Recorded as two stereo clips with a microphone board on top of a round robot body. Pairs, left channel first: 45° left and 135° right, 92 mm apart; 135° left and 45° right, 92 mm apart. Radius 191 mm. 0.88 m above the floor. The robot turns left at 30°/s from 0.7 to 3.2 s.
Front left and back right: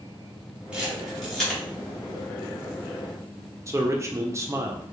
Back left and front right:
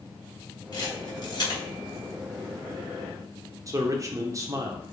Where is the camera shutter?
150° left, 1.1 m; by 1.6 s 125° left, 1.1 m.